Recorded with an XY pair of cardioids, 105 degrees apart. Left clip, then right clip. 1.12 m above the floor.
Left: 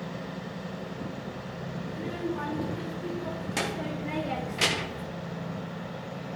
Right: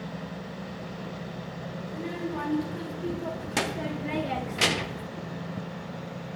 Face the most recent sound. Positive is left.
turn(degrees=-5)